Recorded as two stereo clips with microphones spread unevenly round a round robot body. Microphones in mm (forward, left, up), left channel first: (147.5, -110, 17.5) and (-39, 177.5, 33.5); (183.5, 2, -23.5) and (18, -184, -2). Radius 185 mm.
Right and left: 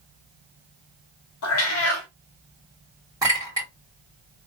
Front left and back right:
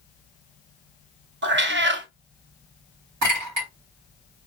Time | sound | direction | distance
1.4 | a cat meowing | 105° right | 0.6 m
3.2 | a clink | 155° right | 2 m